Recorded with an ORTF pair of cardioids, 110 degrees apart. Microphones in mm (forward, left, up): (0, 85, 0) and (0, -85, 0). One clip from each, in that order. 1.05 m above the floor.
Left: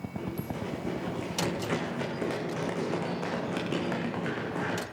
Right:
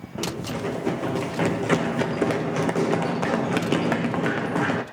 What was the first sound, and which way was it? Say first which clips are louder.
Running footsteps: right 9 dB; 55° right.